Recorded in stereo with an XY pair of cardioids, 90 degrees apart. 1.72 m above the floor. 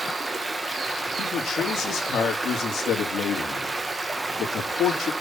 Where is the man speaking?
65° left, 4 m.